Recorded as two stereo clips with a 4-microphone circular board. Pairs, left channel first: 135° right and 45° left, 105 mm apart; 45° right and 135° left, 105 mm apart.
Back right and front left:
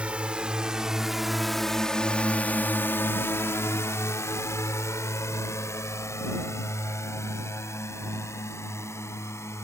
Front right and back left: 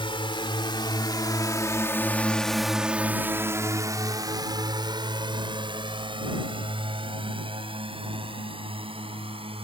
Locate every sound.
0.0 s a drone: 30° right; by 9.6 s 160° left